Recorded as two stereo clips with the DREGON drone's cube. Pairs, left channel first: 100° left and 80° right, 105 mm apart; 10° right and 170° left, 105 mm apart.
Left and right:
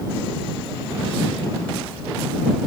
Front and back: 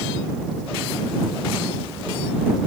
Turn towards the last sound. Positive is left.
No sound to turn to.